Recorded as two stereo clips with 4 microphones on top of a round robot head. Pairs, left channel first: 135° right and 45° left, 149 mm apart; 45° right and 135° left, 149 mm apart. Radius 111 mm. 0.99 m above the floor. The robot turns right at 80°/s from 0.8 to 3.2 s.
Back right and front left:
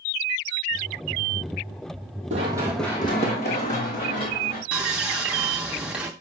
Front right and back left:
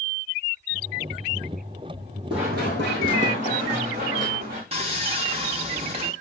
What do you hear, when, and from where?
2.3 s running footsteps: 75° left, 1.3 m; by 4.6 s 175° right, 4 m
4.7 s sawing: 120° left, 0.6 m